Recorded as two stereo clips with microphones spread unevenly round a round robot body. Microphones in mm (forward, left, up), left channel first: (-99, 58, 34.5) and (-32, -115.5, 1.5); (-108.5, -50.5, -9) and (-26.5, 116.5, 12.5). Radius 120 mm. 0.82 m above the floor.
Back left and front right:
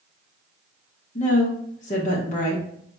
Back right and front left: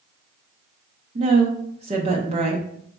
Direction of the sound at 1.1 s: 95° left.